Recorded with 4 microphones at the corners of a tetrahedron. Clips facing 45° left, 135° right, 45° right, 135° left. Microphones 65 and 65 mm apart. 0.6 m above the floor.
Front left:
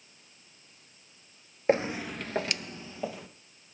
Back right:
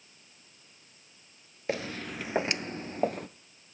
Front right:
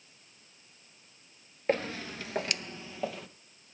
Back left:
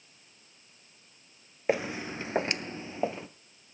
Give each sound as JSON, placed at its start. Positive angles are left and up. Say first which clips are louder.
{"t": 1.7, "sound": "footsteps", "louder": "front left 7 dB, back left 1 dB", "azimuth_deg": 65, "distance_m": 0.6}